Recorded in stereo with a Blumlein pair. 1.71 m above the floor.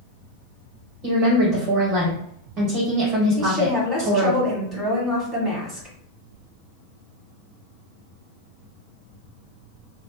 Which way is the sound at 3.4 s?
20° right.